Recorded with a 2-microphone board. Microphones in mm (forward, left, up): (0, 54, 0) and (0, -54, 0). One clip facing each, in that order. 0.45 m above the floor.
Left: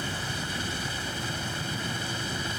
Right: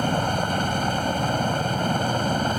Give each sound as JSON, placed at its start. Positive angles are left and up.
{"t": 0.0, "sound": "a helicopter", "side_deg": -55}